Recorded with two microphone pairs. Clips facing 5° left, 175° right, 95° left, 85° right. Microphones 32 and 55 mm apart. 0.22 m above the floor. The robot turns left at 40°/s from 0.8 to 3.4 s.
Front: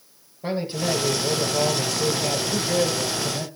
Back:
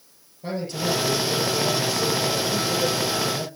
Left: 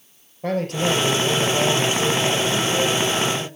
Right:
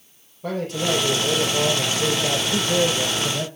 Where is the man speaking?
65° left, 5.5 m; by 3.5 s 40° right, 5.5 m.